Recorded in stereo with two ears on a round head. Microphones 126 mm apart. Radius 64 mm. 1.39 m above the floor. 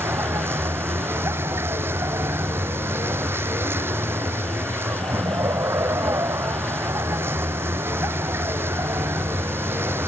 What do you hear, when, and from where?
0.0 s a vehicle: 15° right (ahead or behind)